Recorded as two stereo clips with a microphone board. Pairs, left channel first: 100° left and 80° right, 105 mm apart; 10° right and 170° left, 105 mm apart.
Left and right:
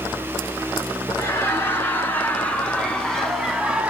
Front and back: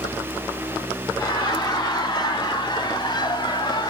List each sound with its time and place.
1.2 s laughter: 35° left, 3.5 m; by 3.9 s 5° right, 1.8 m